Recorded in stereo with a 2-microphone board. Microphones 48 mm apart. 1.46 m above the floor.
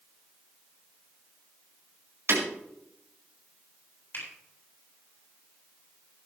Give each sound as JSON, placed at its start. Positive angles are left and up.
{"t": 2.3, "sound": "breaking glass", "side_deg": -65, "distance_m": 4.5}
{"t": 4.1, "sound": "a finger snap", "side_deg": 45, "distance_m": 7.0}